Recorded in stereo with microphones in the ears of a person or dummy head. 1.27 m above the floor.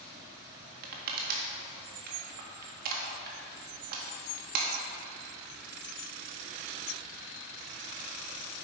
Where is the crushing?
55° right (ahead or behind), 1.6 m.